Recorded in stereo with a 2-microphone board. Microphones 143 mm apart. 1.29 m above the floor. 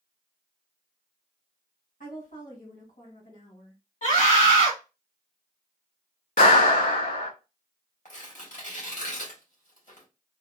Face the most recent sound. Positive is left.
turn(degrees=60)  # may be behind; listen again after turning